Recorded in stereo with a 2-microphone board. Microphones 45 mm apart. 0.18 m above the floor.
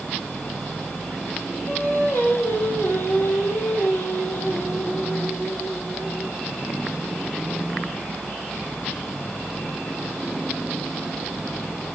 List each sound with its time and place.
1.7 s singing: 60° left (ahead or behind), 4.5 m